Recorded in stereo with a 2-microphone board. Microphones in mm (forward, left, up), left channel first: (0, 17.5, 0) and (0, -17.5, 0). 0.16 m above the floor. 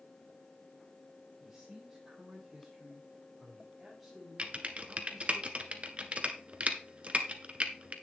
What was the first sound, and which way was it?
A man speaking, 15° right (ahead or behind).